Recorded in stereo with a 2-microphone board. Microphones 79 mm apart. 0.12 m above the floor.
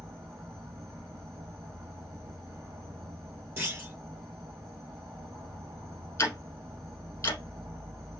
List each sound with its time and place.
0.0 s an insect: 35° right (ahead or behind), 1.0 m
3.6 s a clunk: 30° right (ahead or behind), 1.1 m
6.2 s ticking: 30° left (ahead or behind), 1.4 m